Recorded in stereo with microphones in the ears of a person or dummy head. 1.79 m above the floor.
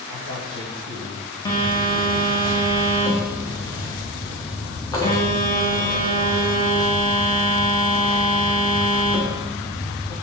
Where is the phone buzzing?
20° left (ahead or behind), 1.3 m.